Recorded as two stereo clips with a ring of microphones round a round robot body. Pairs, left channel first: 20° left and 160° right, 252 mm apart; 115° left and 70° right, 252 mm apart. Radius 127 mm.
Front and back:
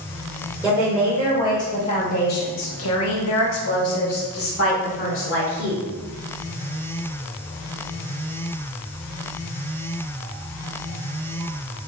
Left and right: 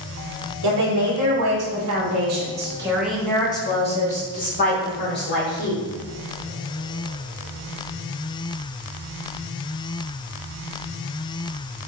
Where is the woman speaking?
70° right, 1.5 m; by 5.8 s 65° left, 2.5 m.